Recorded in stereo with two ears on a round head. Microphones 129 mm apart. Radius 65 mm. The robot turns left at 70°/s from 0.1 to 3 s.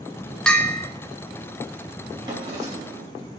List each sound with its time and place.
0.5 s a bell: 5° left (ahead or behind), 0.7 m; by 0.9 s 20° left (ahead or behind), 0.7 m
2.2 s a drawer: 30° right, 2.5 m; by 3.1 s 80° right, 2.5 m